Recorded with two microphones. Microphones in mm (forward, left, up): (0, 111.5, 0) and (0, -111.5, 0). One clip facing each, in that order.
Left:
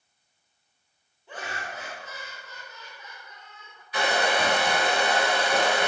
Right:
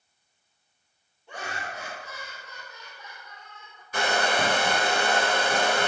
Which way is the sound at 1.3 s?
Centre (ahead or behind).